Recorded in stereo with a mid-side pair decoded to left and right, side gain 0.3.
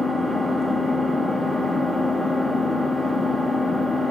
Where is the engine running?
50° left, 2 m.